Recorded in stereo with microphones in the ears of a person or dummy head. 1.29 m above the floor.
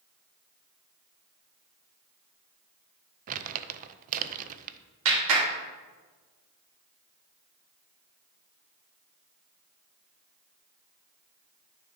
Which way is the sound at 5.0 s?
80° right.